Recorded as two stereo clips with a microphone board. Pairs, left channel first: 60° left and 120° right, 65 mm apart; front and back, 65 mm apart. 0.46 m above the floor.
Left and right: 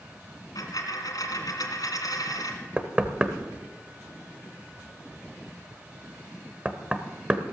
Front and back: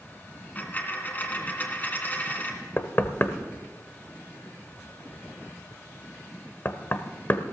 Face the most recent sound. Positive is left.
turn(degrees=-45)